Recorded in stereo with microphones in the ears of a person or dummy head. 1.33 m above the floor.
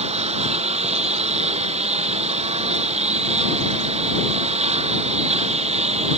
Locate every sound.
0.0 s a lawn mower: 35° right (ahead or behind)